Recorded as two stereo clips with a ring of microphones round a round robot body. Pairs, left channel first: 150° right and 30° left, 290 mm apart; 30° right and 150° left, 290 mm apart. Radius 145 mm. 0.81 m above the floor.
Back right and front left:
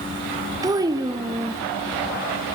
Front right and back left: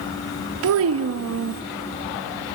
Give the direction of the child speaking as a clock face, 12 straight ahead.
8 o'clock.